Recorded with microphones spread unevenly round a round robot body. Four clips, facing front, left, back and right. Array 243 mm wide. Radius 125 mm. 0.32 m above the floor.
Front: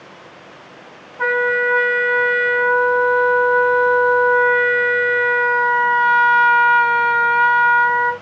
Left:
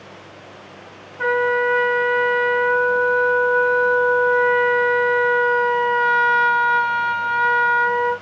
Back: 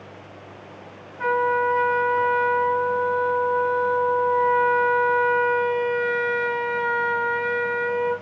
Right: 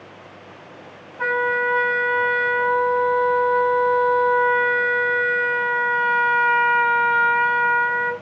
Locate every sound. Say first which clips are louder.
1.2 s a trumpet: left 3 dB, front 3 dB; 25° right, 2 m